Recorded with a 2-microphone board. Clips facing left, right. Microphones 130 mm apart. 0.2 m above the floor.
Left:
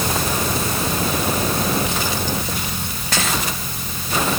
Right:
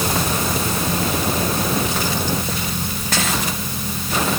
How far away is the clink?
I don't hear a clink.